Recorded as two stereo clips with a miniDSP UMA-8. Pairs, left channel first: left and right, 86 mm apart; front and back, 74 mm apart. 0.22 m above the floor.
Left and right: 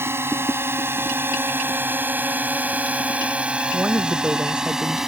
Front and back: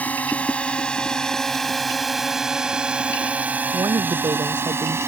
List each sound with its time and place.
0.0 s a drone: 55° right; by 5.1 s 175° right
3.7 s a woman speaking: 165° right